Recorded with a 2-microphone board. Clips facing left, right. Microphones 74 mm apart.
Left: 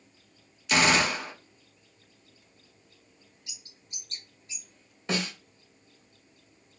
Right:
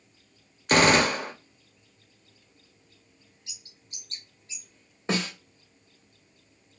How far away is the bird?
About 1.7 m.